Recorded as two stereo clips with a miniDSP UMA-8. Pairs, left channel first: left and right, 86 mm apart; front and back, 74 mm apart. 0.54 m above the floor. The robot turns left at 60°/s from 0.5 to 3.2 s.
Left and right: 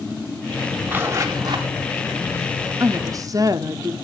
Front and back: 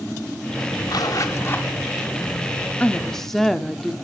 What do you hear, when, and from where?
0.9 s a zipper: 15° right, 1.6 m; by 1.7 s 65° right, 1.6 m
2.8 s a woman speaking: 60° right, 0.8 m; by 4.0 s 80° right, 0.8 m